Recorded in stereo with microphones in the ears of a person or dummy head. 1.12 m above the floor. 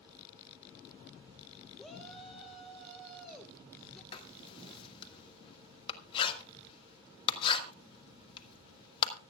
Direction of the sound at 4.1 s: 35° left (ahead or behind).